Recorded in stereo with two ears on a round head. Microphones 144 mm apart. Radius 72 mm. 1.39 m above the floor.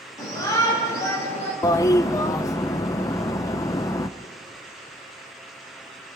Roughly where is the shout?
Left.